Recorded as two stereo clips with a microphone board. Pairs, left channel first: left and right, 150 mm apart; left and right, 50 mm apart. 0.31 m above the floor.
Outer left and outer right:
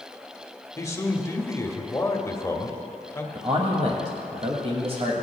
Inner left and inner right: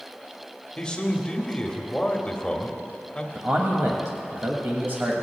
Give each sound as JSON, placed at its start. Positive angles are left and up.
{"t": 0.8, "sound": "a man speaking", "side_deg": 20, "distance_m": 1.0}
{"t": 3.4, "sound": "a man speaking", "side_deg": -45, "distance_m": 1.3}